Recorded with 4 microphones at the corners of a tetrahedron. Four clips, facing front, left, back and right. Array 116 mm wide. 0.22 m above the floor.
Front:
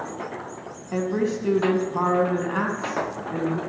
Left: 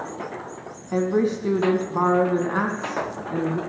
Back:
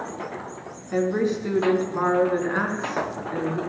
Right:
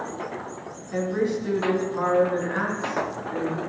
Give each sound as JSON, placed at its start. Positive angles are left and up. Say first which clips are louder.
{"t": 0.9, "sound": "a woman speaking", "louder": "left 3 dB, back 2 dB", "azimuth_deg": 70, "distance_m": 2.0}